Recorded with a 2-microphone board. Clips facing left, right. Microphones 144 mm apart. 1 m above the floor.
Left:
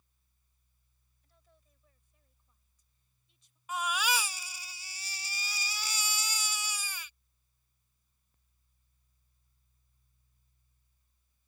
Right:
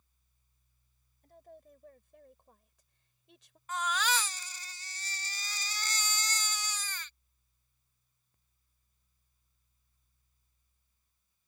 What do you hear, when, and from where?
1.2 s a woman speaking: 55° right (ahead or behind); by 3.6 s 80° right
3.7 s a baby crying: 10° left (ahead or behind)